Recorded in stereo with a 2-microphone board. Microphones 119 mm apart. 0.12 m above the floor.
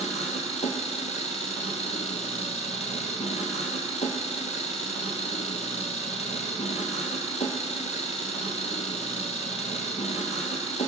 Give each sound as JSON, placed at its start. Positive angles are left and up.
{"t": 0.0, "sound": "an engine running", "side_deg": 70, "distance_m": 1.4}